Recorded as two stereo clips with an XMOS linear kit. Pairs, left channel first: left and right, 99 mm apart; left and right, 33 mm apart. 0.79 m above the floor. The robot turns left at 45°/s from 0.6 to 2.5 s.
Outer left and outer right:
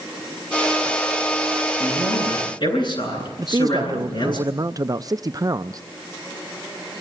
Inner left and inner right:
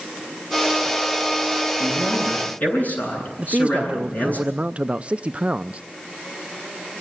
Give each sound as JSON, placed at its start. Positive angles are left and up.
{"t": 1.8, "sound": "a man speaking", "azimuth_deg": 160, "distance_m": 9.5}
{"t": 3.4, "sound": "a man speaking", "side_deg": -40, "distance_m": 0.5}